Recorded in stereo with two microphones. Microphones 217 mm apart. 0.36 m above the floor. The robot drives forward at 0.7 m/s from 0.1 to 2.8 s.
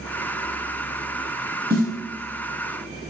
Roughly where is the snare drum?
Right.